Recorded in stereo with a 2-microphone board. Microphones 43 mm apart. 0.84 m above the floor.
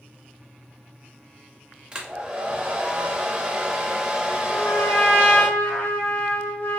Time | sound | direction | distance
1.9 | a hair dryer | 20° right (ahead or behind) | 0.5 m
4.5 | a trumpet | 65° left (ahead or behind) | 1.2 m